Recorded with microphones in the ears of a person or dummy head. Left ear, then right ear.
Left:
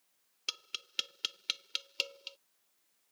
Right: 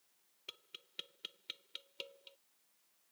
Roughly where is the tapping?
Left.